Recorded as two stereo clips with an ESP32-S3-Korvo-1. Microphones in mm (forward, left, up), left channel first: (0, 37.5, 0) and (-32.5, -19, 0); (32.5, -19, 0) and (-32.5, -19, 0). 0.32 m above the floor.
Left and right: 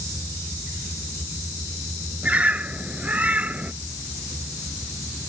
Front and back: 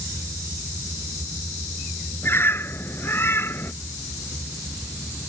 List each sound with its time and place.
2.2 s a bird: 55° right